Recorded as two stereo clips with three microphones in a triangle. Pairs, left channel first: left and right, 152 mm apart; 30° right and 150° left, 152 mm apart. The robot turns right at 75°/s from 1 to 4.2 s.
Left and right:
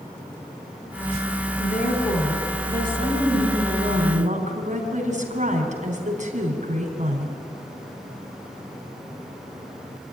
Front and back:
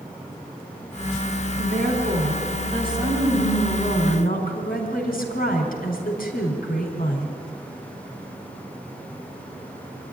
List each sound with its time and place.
1.6 s a woman speaking: 115° left, 4 m; by 7.3 s 50° right, 4 m